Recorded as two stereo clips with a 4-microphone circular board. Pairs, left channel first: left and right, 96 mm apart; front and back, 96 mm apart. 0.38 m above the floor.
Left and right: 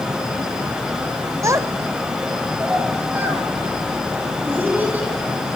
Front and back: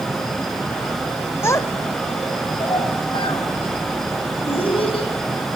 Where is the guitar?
No guitar in this recording.